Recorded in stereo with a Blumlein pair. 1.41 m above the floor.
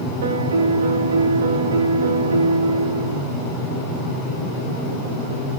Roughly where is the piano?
Ahead right.